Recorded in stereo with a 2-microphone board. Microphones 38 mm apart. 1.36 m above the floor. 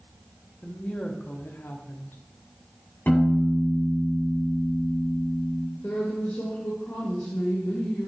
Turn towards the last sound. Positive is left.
turn(degrees=80)